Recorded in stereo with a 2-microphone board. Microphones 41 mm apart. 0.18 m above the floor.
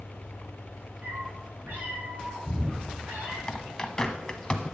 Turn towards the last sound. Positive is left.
turn(degrees=20)  # may be behind; listen again after turning